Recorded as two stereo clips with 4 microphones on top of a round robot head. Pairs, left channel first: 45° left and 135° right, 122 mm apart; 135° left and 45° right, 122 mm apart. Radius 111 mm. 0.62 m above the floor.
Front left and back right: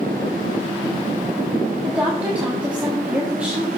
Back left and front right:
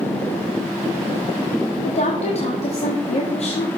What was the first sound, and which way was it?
A woman speaking, 145° left.